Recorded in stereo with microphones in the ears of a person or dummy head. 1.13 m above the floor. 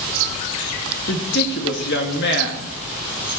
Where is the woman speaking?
60° left (ahead or behind), 1.9 m.